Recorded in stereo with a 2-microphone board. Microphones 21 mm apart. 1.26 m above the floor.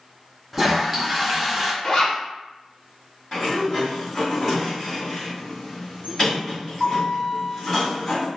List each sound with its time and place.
0.5 s a toilet flushing: 10° right (ahead or behind), 0.6 m
1.8 s a zipper: 30° left (ahead or behind), 1.3 m
3.3 s a sliding door: 5° left (ahead or behind), 1.6 m